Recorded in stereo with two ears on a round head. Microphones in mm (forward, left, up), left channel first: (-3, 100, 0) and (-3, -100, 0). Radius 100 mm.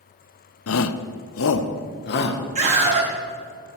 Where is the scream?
30° right (ahead or behind), 1.4 m.